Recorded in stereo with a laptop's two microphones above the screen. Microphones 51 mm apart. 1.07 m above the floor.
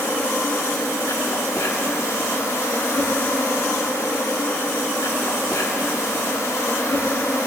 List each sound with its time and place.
0.0 s an insect: 75° left (ahead or behind), 1.4 m